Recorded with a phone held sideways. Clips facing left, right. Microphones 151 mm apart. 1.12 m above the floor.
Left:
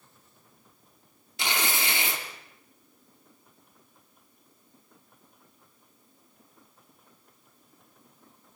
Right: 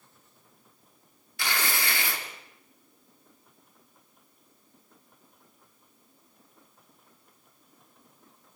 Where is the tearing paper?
20° left (ahead or behind), 2 m.